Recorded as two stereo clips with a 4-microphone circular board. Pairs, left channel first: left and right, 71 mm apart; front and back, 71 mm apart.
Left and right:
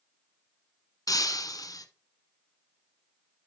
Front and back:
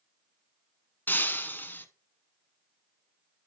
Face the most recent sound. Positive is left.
turn(degrees=65)